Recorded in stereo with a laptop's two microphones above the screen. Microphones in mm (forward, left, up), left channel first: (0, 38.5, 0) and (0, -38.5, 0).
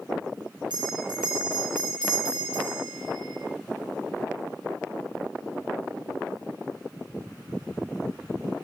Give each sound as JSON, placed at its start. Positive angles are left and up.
{"t": 0.7, "sound": "a bell", "side_deg": -70, "distance_m": 8.5}